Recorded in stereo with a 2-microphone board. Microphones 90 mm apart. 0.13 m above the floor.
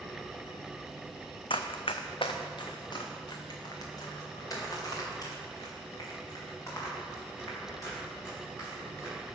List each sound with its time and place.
1.5 s running footsteps: 75° left (ahead or behind), 0.6 m; by 9.4 s 35° left (ahead or behind), 6 m